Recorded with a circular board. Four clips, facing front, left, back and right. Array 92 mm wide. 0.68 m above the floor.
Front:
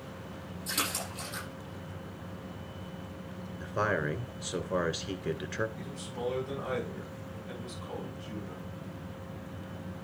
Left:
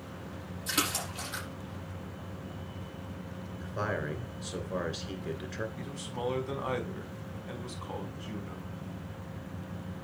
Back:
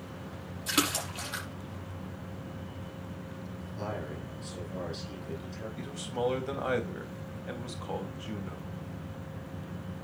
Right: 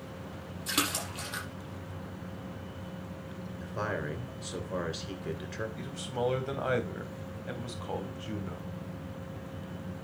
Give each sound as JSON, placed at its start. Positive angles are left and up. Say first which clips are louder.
{"t": 0.7, "sound": "a splash", "louder": "even, back 6 dB", "azimuth_deg": -150, "distance_m": 6.0}
{"t": 3.6, "sound": "a man speaking", "louder": "left 1 dB, front 8 dB", "azimuth_deg": -5, "distance_m": 2.5}
{"t": 5.8, "sound": "a man speaking", "louder": "right 4 dB, back 5 dB", "azimuth_deg": -130, "distance_m": 3.5}